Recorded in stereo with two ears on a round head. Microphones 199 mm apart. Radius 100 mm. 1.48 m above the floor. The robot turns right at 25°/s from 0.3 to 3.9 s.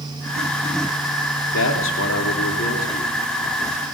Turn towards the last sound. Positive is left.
turn(degrees=165)